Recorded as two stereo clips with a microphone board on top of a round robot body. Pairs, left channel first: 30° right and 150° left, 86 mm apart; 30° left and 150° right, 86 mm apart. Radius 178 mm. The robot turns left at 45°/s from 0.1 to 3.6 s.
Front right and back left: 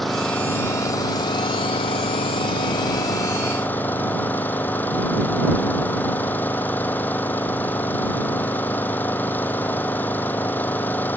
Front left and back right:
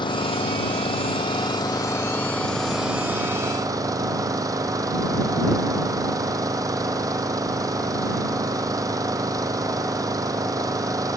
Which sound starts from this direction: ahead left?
An engine running, at 0.0 s.